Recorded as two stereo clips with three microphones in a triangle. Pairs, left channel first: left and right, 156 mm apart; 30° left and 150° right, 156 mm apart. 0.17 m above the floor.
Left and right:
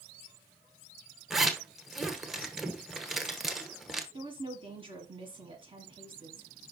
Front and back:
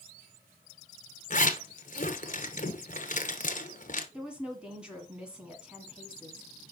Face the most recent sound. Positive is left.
turn(degrees=-70)